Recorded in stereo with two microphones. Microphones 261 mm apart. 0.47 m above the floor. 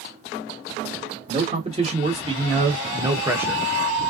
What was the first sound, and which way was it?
A man speaking, 25° right (ahead or behind).